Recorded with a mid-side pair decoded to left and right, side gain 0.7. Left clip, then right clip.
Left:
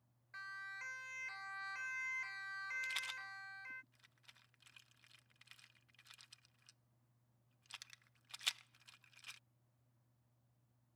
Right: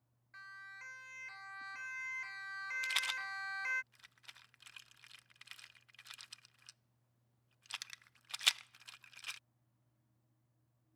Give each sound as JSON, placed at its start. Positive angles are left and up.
{"t": 0.3, "sound": "a siren", "azimuth_deg": 15}
{"t": 2.8, "sound": "a rattle", "azimuth_deg": -40}